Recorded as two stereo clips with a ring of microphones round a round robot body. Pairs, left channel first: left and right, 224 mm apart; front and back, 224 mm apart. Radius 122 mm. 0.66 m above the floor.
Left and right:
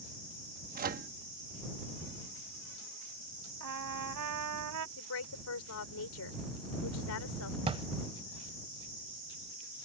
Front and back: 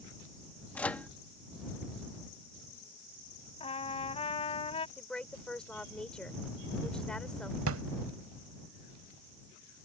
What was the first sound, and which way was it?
A microwave, 80° right.